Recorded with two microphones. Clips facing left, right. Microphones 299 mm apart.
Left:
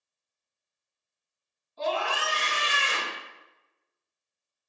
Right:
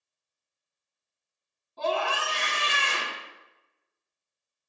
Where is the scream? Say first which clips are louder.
Right 1 dB; 65° right (ahead or behind), 3 m.